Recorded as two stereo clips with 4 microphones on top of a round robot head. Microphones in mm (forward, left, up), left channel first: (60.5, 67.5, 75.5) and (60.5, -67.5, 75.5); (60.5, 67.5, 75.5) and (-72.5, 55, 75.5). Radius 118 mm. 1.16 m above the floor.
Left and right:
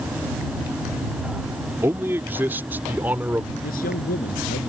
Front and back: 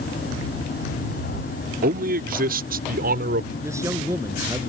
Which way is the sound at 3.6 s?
120° left.